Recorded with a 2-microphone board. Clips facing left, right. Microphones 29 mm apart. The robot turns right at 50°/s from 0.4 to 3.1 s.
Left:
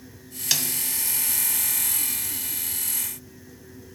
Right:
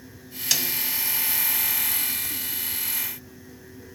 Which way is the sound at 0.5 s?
10° left (ahead or behind).